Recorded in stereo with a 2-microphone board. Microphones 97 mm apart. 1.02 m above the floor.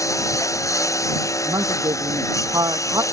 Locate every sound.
0.0 s a lawn mower: 35° left (ahead or behind)
1.4 s a woman speaking: 40° right (ahead or behind)